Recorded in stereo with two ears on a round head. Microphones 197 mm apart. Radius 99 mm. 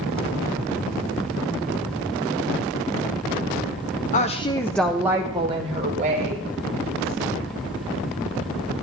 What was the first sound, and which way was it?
A woman speaking, 35° left (ahead or behind).